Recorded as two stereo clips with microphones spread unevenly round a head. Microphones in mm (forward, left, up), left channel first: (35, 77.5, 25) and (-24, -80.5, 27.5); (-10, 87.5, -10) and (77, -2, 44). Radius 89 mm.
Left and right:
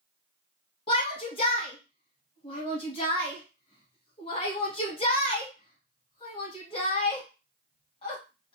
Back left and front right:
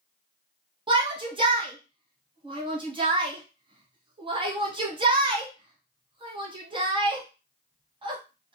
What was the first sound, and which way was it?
A shout, 10° left.